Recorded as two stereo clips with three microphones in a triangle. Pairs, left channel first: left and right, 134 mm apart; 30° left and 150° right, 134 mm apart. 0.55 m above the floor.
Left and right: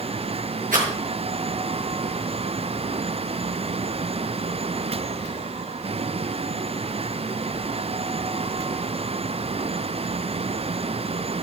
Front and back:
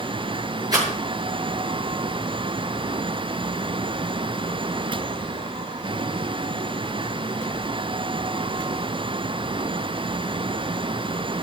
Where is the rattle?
90° right, 7.5 m.